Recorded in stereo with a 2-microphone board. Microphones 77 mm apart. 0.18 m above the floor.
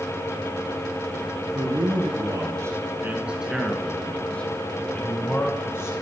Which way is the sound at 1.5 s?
65° right (ahead or behind).